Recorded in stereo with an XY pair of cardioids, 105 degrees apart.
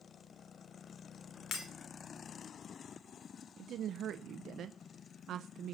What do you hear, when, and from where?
1.5 s breaking glass: 70° left, 3.5 m
3.6 s a woman speaking: 65° right, 0.7 m